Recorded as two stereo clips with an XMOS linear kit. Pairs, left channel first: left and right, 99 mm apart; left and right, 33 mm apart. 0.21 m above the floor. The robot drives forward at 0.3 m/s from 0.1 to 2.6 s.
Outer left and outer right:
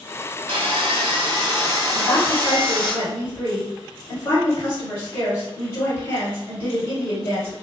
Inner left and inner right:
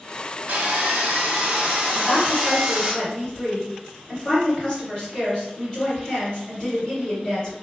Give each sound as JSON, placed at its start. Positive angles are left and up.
{"t": 0.5, "sound": "sawing", "side_deg": -70, "distance_m": 0.6}
{"t": 1.9, "sound": "a woman speaking", "side_deg": 25, "distance_m": 1.8}